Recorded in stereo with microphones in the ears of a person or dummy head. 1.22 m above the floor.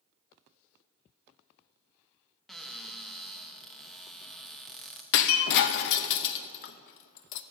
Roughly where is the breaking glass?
Left.